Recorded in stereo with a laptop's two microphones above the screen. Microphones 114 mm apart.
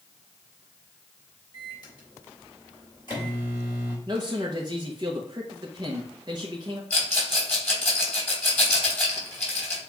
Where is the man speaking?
40° right (ahead or behind), 0.8 m.